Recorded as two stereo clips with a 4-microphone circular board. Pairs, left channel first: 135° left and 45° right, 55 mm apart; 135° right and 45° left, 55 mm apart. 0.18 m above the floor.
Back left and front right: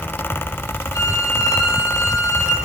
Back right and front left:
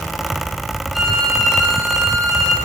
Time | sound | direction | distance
0.9 | a violin | 135° left | 8.5 m